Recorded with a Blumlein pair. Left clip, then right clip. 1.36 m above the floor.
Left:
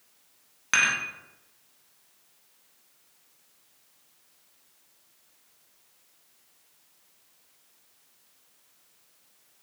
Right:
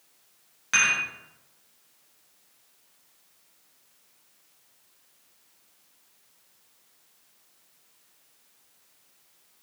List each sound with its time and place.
0.7 s dishes clattering: 15° left, 1.5 m